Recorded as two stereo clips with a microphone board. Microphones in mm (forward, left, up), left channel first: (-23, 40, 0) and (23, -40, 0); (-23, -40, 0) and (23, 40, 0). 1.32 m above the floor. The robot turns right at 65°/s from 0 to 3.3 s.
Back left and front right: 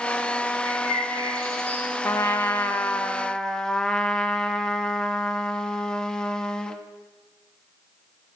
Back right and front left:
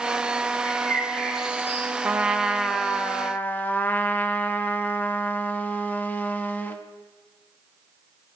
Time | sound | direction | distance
0.6 | a bird | 70° right | 2 m
2.0 | a trumpet | 110° left | 0.7 m